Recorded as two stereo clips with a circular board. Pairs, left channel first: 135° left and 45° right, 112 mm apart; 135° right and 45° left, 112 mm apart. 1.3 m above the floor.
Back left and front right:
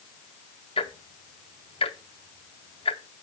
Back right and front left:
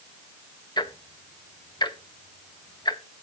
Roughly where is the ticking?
Behind.